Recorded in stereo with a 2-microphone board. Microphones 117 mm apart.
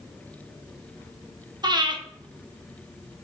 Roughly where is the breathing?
Right.